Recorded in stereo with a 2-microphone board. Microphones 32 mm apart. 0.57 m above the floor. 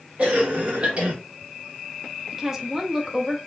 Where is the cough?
40° right (ahead or behind), 1.0 m.